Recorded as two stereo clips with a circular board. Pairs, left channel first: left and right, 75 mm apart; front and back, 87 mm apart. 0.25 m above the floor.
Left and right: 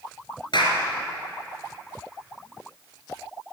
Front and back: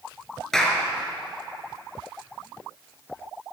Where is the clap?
85° left, 4 m.